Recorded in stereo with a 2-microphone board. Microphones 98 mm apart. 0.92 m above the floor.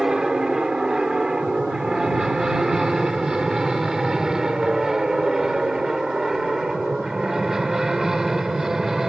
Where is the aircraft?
5° right (ahead or behind).